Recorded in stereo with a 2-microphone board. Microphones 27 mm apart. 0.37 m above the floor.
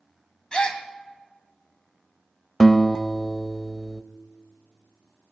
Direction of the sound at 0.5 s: 30° left (ahead or behind).